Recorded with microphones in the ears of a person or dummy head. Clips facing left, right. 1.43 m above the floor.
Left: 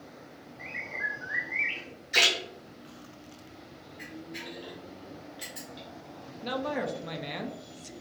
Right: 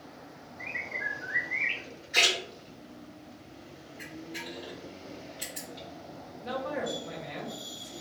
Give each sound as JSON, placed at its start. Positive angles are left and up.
{"t": 0.6, "sound": "a bird", "side_deg": 15, "distance_m": 0.9}
{"t": 2.1, "sound": "a splash", "side_deg": 60, "distance_m": 1.1}
{"t": 4.0, "sound": "a camera shutter", "side_deg": 10, "distance_m": 1.3}
{"t": 6.4, "sound": "a man speaking", "side_deg": 55, "distance_m": 0.6}